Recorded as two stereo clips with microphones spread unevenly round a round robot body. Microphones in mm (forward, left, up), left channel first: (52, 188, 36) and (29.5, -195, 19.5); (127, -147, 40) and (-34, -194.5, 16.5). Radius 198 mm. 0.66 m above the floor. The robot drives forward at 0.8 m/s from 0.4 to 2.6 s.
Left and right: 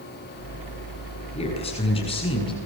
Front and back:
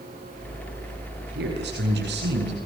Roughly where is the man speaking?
Behind.